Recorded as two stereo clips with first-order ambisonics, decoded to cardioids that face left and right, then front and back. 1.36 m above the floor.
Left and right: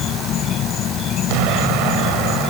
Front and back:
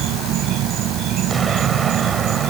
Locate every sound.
0.0 s an insect: 140° left
1.3 s an explosion: 110° right